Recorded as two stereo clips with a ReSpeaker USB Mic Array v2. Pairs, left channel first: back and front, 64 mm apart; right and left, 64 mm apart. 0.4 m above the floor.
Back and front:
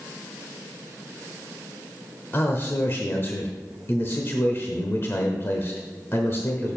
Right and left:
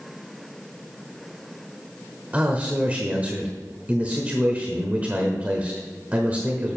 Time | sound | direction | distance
2.3 | a man speaking | 145° left | 1.0 m